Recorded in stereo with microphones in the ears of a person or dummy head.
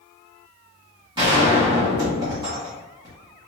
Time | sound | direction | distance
1.2 | a gunshot | 30° right (ahead or behind) | 1.8 m